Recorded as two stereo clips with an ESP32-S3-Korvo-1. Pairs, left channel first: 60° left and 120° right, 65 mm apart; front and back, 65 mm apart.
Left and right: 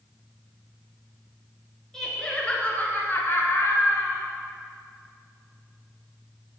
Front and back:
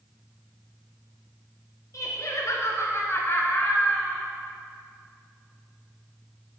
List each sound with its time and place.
1.9 s laughter: 20° right, 3 m; by 4.2 s 75° left, 2.5 m